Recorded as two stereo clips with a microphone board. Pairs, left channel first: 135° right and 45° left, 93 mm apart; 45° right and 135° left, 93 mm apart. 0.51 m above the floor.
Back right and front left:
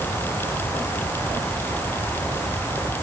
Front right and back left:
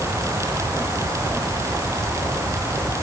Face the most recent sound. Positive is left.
No sound to turn to.